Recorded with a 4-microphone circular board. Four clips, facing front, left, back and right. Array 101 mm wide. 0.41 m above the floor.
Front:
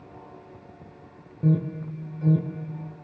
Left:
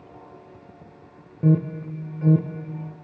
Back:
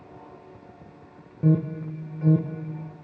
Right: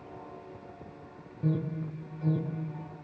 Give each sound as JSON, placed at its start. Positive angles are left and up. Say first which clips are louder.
{"t": 1.4, "sound": "an alarm", "louder": "left 10 dB, back 2 dB", "azimuth_deg": 110, "distance_m": 1.2}